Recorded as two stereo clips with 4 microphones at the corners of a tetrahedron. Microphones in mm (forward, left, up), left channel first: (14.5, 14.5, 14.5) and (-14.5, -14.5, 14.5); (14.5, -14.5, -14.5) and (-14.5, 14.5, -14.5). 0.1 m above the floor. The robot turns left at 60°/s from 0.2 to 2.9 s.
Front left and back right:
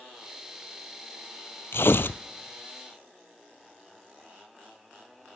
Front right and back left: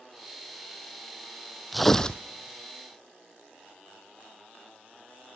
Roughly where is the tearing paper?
Ahead left.